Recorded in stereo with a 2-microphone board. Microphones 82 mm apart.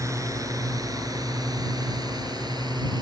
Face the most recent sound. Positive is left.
turn(degrees=-60)  # may be behind; listen again after turning